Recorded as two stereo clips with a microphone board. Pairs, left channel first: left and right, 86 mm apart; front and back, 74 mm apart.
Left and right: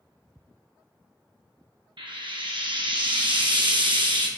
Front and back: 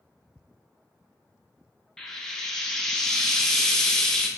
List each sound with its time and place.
2.0 s frying: 85° right, 0.6 m